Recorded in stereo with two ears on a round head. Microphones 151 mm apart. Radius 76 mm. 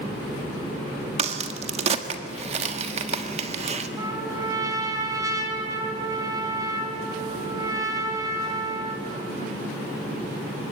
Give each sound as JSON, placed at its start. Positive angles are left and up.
{"t": 1.2, "sound": "a crack", "side_deg": -35, "distance_m": 1.5}
{"t": 4.0, "sound": "a trumpet", "side_deg": -20, "distance_m": 2.5}